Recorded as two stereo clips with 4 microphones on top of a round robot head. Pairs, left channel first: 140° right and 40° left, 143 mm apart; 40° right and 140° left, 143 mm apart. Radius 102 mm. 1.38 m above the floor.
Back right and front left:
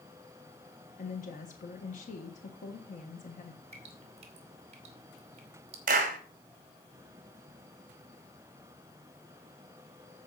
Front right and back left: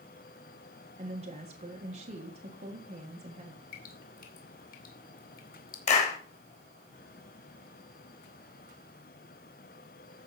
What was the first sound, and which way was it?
A woman speaking, 175° right.